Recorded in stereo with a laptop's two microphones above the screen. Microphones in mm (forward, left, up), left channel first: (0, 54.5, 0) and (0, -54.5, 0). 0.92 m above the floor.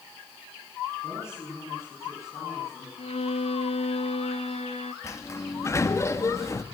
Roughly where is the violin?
Left.